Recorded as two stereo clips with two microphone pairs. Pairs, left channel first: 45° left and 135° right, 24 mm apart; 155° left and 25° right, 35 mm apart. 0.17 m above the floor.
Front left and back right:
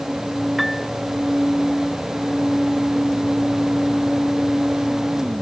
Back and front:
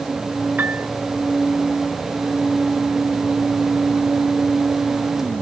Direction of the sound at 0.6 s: 50° right.